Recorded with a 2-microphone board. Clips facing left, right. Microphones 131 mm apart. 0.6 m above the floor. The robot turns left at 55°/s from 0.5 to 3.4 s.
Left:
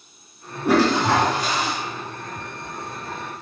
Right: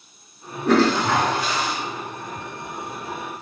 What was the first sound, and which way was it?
A toilet flushing, 175° left.